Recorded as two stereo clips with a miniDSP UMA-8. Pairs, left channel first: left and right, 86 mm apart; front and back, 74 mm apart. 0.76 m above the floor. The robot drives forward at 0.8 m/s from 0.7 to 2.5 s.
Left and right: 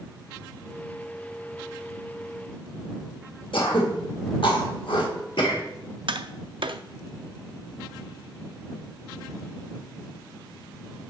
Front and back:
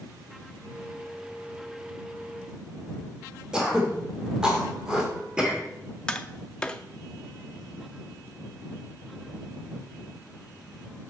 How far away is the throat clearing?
About 1.7 m.